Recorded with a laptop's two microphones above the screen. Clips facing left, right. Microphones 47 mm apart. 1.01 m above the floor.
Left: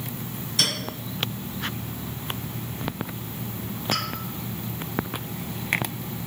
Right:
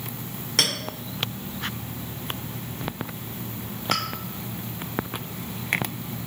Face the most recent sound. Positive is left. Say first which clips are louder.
# right 1 dB
turn(degrees=-75)  # may be behind; listen again after turning